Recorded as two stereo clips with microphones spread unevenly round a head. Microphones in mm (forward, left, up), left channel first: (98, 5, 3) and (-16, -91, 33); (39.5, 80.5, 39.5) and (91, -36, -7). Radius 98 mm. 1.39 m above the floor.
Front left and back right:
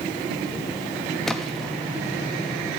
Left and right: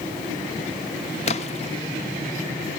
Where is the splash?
135° left, 1.1 m.